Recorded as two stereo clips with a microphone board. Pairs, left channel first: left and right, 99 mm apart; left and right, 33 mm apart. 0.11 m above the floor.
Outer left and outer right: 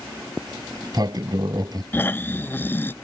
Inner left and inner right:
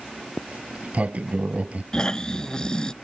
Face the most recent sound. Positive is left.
turn(degrees=25)  # may be behind; listen again after turning